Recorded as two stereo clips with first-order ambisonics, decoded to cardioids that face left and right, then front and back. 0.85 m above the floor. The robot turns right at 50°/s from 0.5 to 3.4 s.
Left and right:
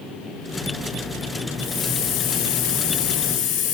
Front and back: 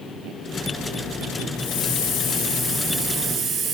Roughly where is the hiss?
Ahead.